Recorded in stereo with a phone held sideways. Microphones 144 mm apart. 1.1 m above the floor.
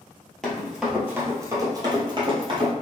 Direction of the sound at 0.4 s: 5° left (ahead or behind).